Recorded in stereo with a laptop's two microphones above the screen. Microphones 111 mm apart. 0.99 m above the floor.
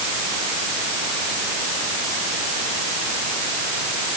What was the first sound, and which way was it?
Only background noise.